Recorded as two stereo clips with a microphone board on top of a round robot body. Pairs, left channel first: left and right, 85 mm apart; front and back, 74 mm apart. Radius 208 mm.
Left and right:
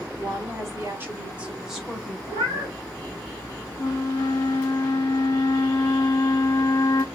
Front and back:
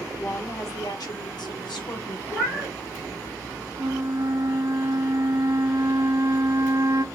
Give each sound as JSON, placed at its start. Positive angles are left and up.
{"t": 0.2, "sound": "a woman speaking", "azimuth_deg": -45, "distance_m": 1.2}
{"t": 2.3, "sound": "a cat meowing", "azimuth_deg": -85, "distance_m": 1.2}
{"t": 3.8, "sound": "a flute", "azimuth_deg": 140, "distance_m": 0.5}